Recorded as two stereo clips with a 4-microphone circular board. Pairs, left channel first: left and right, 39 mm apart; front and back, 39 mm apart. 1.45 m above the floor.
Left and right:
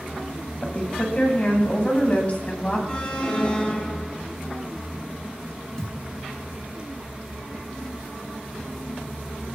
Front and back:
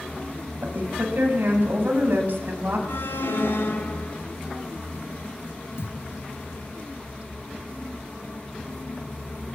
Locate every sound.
0.6 s a woman speaking: 145° left, 9.5 m; by 2.8 s 140° left, 10.5 m
2.9 s an alarm: 25° left, 9.5 m
5.8 s a thud: 15° left, 6.5 m